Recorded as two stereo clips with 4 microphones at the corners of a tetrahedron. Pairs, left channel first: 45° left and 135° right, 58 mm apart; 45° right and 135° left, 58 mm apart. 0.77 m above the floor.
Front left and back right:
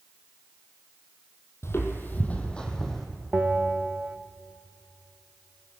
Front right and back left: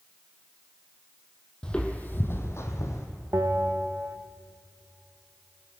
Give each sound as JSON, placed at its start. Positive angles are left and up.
{"t": 1.6, "sound": "footsteps", "azimuth_deg": 25, "distance_m": 1.3}
{"t": 3.3, "sound": "a bell", "azimuth_deg": 165, "distance_m": 0.6}